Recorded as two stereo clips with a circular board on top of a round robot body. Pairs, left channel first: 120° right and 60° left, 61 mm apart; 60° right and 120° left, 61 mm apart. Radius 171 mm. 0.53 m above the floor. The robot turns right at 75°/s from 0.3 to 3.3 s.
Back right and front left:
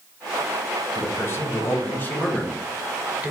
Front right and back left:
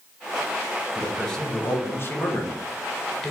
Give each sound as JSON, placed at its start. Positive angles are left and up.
{"t": 0.9, "sound": "a man speaking", "azimuth_deg": -160, "distance_m": 1.0}